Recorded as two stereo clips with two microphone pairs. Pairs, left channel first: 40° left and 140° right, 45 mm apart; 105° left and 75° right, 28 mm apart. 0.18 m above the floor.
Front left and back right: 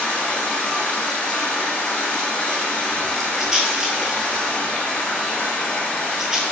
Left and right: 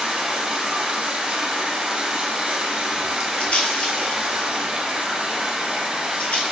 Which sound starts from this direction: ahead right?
Running water, at 0.0 s.